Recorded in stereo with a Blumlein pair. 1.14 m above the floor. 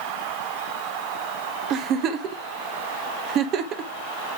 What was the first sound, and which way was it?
A giggle, 35° right.